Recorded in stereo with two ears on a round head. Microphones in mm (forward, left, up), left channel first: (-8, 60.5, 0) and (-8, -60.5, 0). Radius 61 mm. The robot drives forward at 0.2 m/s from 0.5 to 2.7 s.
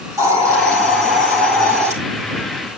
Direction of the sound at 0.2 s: 25° right (ahead or behind).